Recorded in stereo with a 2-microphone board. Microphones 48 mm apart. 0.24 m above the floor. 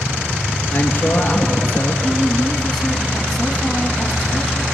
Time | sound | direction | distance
0.7 | a man speaking | 35° left (ahead or behind) | 3 m
2.0 | a woman speaking | centre (ahead or behind) | 2 m